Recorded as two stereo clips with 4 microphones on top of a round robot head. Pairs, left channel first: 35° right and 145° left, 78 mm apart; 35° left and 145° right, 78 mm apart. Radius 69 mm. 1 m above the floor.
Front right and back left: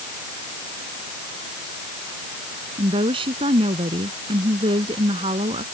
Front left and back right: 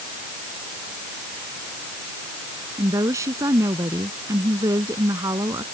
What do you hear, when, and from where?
2.8 s a woman speaking: 165° left